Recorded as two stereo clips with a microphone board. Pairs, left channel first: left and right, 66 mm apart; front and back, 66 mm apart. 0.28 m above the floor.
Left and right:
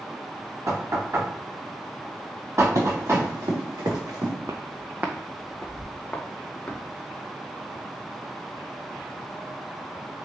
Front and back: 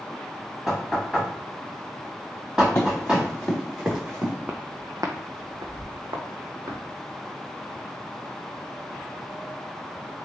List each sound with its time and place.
0.7 s knocking: 105° right, 1.6 m
2.8 s running footsteps: 60° right, 1.9 m; by 4.3 s 115° right, 2.0 m
4.5 s footsteps: 115° right, 0.7 m; by 6.8 s 160° left, 1.5 m